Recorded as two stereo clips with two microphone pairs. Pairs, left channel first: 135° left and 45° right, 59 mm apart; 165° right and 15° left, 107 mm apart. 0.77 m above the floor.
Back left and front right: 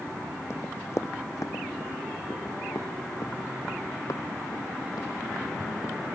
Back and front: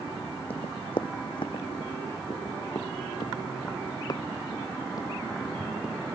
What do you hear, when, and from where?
0.5 s running footsteps: 170° left; by 6.0 s 135° left